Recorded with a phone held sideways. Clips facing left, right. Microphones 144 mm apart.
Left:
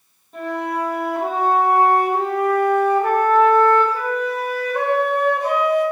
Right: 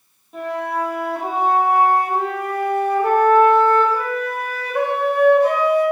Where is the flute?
5° right (ahead or behind), 0.8 m.